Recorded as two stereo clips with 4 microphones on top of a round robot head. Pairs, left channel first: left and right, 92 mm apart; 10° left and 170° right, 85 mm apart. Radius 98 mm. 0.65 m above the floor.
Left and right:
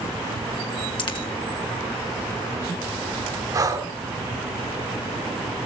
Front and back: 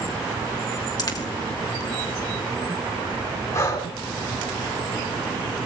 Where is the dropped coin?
55° left, 2.5 m.